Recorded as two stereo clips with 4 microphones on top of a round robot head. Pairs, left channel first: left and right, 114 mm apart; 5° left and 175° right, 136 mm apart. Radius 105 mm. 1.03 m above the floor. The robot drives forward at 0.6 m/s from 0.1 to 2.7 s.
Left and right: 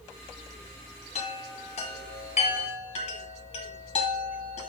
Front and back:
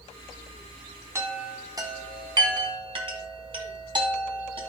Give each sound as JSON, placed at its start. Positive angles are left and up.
{"t": 1.1, "sound": "a chime", "azimuth_deg": 115, "distance_m": 2.0}